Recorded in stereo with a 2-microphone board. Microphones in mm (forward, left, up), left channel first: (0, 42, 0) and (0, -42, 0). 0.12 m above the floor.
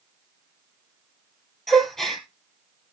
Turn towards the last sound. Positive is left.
turn(degrees=5)  # may be behind; listen again after turning